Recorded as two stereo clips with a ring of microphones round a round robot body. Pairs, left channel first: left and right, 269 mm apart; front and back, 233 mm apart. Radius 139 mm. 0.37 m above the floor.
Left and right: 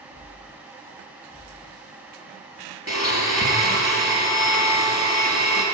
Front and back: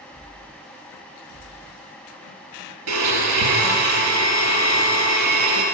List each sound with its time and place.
2.9 s a blender: 170° right, 3 m